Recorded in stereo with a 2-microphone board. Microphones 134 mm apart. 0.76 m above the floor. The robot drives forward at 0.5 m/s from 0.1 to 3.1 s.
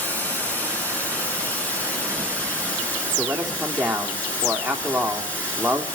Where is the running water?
10° left (ahead or behind), 8 m.